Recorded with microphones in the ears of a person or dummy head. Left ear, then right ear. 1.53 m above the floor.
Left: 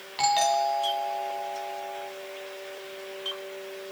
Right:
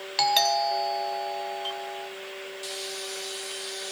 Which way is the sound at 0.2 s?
35° right (ahead or behind).